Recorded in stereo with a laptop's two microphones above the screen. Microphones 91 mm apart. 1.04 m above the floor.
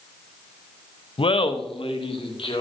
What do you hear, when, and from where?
1.2 s laughter: 75° left (ahead or behind), 0.6 m; by 2.6 s 85° left, 2.5 m